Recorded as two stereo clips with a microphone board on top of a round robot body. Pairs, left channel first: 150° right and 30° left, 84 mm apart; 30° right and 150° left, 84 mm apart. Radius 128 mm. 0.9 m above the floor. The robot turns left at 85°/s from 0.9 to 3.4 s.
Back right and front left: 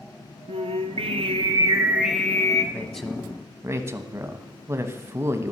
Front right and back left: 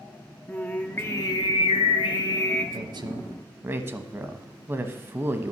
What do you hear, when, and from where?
0.5 s singing: 45° left, 0.9 m; by 2.6 s 105° right, 0.9 m
2.7 s a woman speaking: 145° left, 1.3 m; by 5.5 s 90° left, 1.3 m